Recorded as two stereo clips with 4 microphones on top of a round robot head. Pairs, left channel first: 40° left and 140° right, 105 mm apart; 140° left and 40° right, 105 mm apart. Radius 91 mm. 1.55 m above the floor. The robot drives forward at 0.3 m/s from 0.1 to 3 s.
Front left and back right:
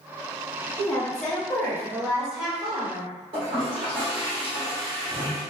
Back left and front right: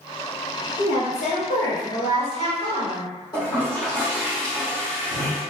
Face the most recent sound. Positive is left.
turn(degrees=-170)